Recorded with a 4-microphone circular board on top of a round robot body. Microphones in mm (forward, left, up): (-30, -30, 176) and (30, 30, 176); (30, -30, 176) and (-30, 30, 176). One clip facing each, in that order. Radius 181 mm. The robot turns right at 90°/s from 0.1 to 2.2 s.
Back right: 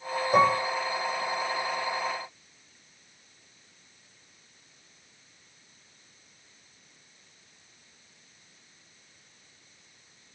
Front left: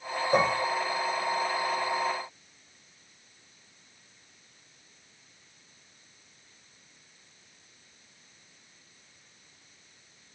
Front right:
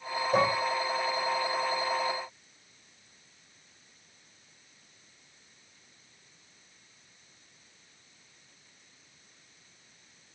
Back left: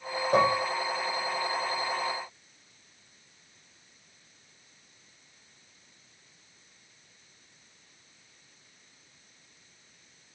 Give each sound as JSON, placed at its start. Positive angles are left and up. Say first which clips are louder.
{"t": 0.3, "sound": "dishes clattering", "louder": "back right 3 dB, back left 3 dB", "azimuth_deg": 100, "distance_m": 1.7}